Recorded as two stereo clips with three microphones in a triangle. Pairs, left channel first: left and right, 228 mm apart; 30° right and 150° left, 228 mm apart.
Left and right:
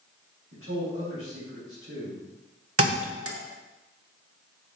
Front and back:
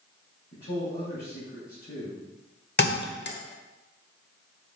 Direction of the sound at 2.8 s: 75° right.